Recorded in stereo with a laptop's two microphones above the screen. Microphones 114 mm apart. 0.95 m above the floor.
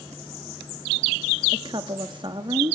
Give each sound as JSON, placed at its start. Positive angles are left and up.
{"t": 1.5, "sound": "a woman speaking", "side_deg": -45, "distance_m": 1.2}